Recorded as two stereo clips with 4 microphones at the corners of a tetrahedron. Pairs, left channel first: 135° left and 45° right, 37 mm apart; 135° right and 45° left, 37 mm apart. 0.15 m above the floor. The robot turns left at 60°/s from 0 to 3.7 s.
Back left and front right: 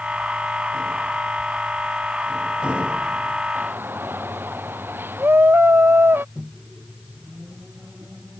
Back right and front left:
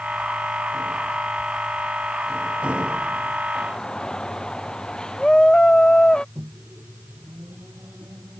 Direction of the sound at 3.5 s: 55° right.